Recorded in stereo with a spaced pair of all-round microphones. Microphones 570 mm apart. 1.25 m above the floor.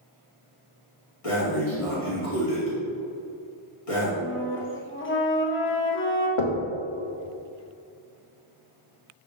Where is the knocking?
55° left (ahead or behind), 0.8 m.